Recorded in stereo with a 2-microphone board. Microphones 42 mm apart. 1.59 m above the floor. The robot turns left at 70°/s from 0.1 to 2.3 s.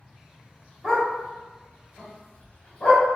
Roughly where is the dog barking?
Centre.